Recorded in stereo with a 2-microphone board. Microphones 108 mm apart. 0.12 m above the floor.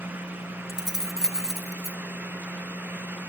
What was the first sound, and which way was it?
Keys jangling, 5° right (ahead or behind).